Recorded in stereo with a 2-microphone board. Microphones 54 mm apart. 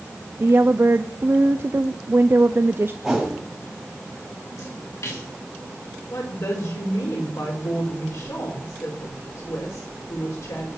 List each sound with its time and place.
0.4 s a woman speaking: 45° right (ahead or behind), 0.5 m
3.0 s a whoosh: centre (ahead or behind), 6 m
4.6 s a splash: 85° left, 9.5 m
6.1 s a woman speaking: 75° left (ahead or behind), 5.5 m